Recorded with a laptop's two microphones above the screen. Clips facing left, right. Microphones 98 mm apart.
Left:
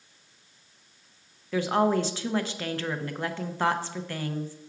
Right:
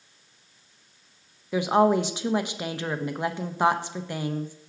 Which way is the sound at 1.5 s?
15° right (ahead or behind).